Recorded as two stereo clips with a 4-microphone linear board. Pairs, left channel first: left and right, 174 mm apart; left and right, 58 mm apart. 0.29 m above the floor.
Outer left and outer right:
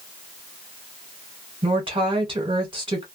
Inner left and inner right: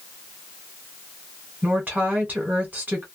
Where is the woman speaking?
30° right (ahead or behind), 1.6 m.